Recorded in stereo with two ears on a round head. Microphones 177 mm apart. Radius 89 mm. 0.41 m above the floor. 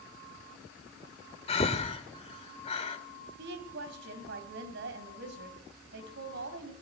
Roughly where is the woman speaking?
Right.